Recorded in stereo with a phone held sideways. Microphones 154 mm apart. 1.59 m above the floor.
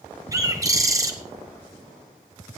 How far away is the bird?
About 1.7 m.